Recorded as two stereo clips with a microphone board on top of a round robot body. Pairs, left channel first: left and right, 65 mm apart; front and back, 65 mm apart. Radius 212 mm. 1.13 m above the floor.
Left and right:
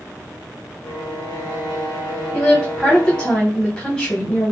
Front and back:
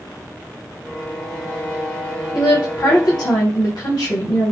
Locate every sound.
0.8 s a violin: 75° left, 0.8 m
2.3 s a woman speaking: 15° left, 1.2 m